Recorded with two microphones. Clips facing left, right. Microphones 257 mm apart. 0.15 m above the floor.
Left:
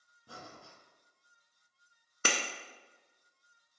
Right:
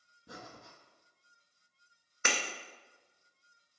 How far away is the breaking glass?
About 0.6 m.